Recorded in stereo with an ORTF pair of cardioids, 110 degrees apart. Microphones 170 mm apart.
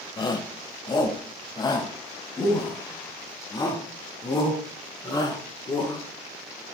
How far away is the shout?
About 1.7 m.